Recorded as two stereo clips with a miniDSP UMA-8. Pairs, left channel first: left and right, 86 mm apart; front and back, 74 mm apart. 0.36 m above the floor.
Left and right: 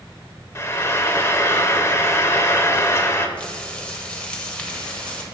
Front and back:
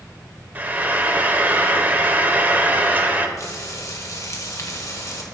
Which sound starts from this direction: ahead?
Frying, at 3.4 s.